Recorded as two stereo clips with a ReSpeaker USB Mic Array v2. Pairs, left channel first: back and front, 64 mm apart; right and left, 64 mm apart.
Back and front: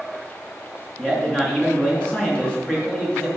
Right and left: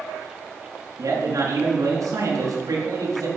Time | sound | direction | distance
1.0 | a man speaking | 105° left | 4 m